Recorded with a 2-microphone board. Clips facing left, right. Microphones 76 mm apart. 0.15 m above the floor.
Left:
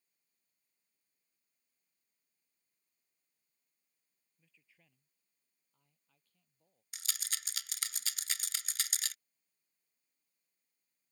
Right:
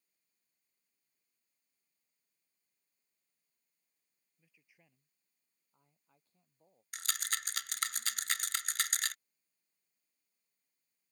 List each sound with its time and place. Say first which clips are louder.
4.4 s a man speaking: right 2 dB; 10° right (ahead or behind); by 6.8 s 30° right (ahead or behind)
6.9 s a rattle: right 7 dB; 55° right (ahead or behind)